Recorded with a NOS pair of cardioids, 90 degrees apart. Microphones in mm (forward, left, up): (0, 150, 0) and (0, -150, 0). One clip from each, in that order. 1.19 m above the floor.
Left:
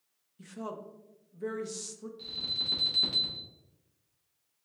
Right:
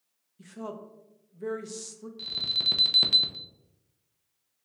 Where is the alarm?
55° right, 0.8 m.